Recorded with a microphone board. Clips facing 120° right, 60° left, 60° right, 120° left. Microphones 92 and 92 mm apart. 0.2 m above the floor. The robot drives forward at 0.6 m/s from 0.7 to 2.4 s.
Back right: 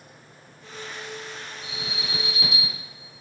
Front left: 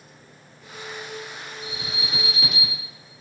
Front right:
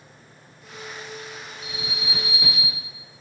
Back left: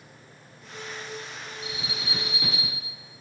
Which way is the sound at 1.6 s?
110° right.